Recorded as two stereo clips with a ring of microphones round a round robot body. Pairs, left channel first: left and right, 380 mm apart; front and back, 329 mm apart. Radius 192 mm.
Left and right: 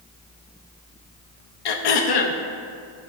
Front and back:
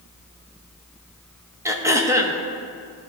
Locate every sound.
1.6 s throat clearing: 100° left, 0.9 m